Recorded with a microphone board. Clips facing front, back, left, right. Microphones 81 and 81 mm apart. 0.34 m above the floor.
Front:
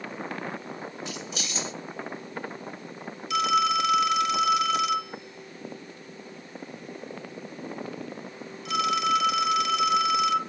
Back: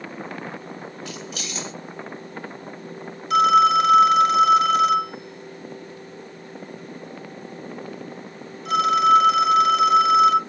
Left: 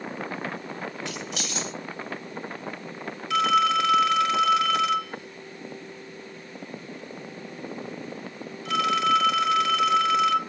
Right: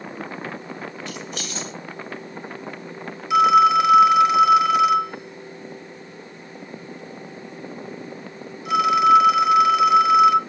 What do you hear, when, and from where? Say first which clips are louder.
1.1 s keys jangling: back 2 dB, right 1 dB; 70° left, 4.5 m
3.3 s a phone ringing: back 8 dB, right 7 dB; 160° right, 0.8 m